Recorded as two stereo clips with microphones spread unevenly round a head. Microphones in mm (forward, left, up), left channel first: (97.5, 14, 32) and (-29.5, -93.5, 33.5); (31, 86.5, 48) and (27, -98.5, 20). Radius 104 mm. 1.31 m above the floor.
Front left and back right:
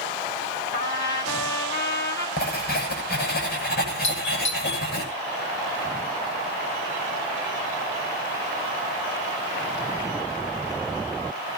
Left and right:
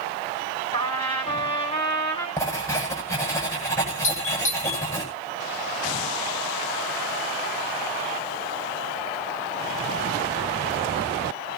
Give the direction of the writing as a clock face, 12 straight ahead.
11 o'clock.